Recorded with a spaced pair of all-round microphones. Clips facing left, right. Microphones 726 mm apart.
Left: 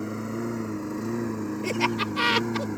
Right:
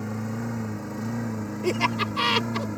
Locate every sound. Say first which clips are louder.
0.0 s a lawn mower: left 1 dB; 25° right (ahead or behind); by 2.8 s 15° right (ahead or behind)
1.6 s laughter: right 4 dB; 25° left (ahead or behind)